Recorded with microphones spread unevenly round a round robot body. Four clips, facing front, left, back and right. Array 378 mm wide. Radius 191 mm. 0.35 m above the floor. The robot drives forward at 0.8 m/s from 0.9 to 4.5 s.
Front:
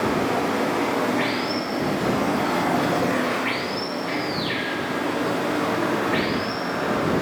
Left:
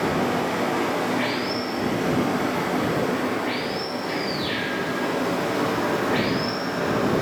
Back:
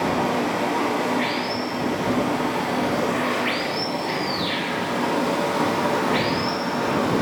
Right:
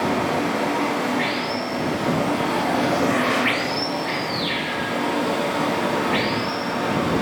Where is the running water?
15° right, 2.0 m; by 7.2 s 155° right, 1.1 m.